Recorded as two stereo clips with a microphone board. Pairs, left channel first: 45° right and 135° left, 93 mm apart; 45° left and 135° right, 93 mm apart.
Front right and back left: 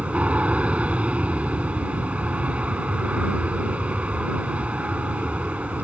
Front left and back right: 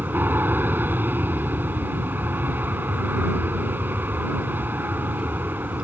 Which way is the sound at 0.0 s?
170° right.